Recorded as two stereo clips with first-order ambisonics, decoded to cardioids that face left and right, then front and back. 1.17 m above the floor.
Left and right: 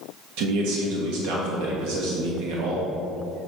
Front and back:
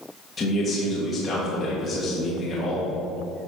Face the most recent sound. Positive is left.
turn(degrees=-75)